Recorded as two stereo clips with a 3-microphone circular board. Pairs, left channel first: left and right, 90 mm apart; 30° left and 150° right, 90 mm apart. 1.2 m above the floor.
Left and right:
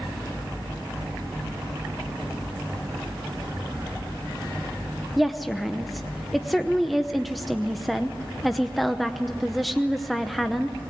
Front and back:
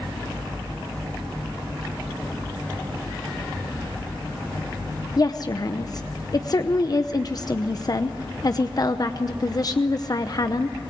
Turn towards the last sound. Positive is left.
turn(degrees=0)